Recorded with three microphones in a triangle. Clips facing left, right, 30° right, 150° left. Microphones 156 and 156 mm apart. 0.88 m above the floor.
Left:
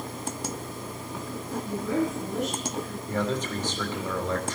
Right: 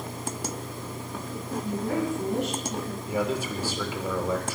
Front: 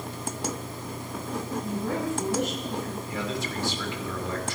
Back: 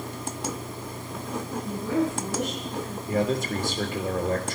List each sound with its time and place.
1.6 s a woman speaking: 60° right, 6.5 m
3.1 s a man speaking: 170° right, 2.5 m